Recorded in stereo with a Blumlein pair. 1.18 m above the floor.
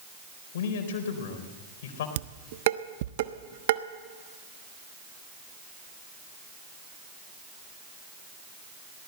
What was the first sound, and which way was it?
A man speaking, 55° left.